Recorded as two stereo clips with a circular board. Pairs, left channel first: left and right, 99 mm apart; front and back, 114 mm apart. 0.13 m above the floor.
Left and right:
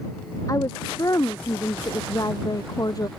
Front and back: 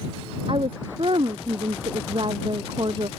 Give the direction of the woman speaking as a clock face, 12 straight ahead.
7 o'clock.